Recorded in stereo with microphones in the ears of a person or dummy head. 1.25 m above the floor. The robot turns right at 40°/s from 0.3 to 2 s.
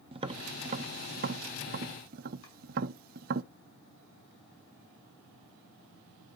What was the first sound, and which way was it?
Tapping, 30° right (ahead or behind).